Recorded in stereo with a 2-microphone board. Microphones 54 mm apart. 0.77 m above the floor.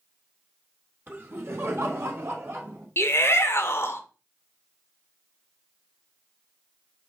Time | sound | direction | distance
1.1 | laughter | 35° right (ahead or behind) | 1.0 m
3.0 | a shout | 50° left (ahead or behind) | 0.7 m